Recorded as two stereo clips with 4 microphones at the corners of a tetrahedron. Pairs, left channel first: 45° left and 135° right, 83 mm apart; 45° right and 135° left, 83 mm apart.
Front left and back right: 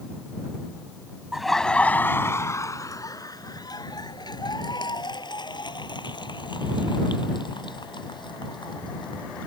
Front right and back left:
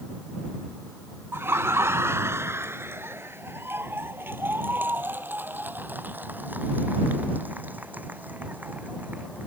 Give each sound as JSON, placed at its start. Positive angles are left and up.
{"t": 1.3, "sound": "laughter", "azimuth_deg": 145}